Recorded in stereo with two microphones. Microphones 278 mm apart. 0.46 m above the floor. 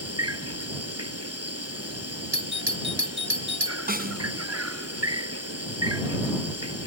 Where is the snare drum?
35° right (ahead or behind).